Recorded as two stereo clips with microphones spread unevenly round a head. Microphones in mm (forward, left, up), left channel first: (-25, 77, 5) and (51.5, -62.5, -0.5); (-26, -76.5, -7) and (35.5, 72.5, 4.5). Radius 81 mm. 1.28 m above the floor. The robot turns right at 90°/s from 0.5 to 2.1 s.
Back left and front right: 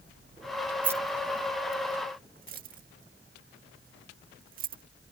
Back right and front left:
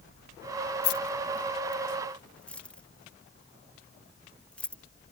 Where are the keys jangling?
140° right; by 4.8 s 30° right.